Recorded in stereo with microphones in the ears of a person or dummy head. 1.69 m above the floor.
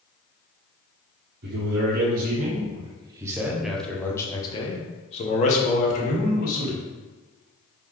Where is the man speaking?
65° right (ahead or behind), 1.4 m; by 6.8 s 55° left (ahead or behind), 2 m.